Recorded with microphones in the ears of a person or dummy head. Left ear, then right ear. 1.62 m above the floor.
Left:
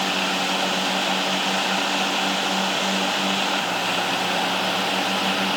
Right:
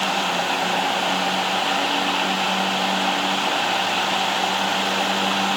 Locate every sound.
Only background noise.